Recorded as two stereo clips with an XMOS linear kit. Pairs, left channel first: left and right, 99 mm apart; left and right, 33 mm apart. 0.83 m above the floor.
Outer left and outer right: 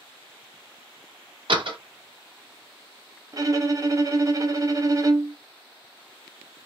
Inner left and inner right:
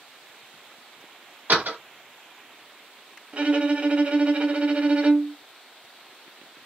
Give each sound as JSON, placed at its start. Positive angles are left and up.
{"t": 1.5, "sound": "a door slam", "side_deg": -60, "distance_m": 0.9}
{"t": 3.3, "sound": "a violin", "side_deg": -35, "distance_m": 0.5}